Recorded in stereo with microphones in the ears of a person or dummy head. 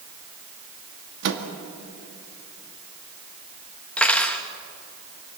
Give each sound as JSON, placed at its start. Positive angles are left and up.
{"t": 1.2, "sound": "a microwave", "side_deg": -60, "distance_m": 1.9}
{"t": 4.0, "sound": "cutlery clinking", "side_deg": 5, "distance_m": 1.1}